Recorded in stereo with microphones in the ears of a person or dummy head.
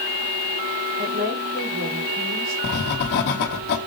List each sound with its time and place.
1.0 s a woman speaking: 50° right (ahead or behind), 4 m
2.6 s writing: 55° left (ahead or behind), 1.2 m